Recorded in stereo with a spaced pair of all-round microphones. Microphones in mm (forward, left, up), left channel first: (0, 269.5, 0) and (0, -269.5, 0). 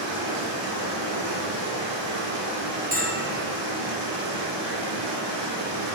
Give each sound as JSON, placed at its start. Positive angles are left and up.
{"t": 0.0, "sound": "running water", "side_deg": -50, "distance_m": 2.0}
{"t": 2.9, "sound": "a bell", "side_deg": -15, "distance_m": 0.8}